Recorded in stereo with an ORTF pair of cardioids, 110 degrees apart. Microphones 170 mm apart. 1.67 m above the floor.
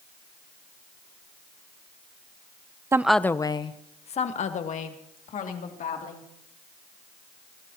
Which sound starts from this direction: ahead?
A woman speaking, at 2.9 s.